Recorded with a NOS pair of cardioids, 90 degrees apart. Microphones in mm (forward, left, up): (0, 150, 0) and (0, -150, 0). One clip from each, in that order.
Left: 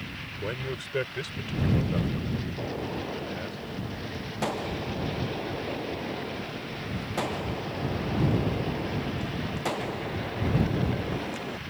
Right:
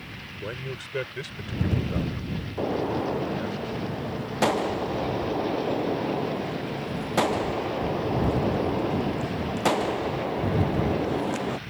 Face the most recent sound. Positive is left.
turn(degrees=-35)